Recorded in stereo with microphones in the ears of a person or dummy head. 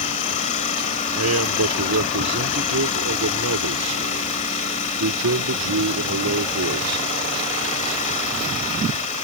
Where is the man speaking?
80° right.